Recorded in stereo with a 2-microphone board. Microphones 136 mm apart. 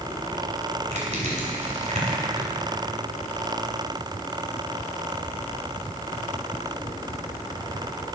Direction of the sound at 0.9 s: 55° right (ahead or behind).